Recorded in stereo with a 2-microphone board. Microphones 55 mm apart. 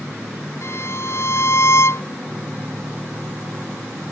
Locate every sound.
0.6 s a violin: 55° left (ahead or behind)